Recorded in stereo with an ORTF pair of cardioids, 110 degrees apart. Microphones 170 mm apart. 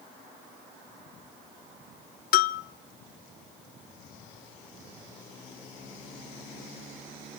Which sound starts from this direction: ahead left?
A bell, at 2.3 s.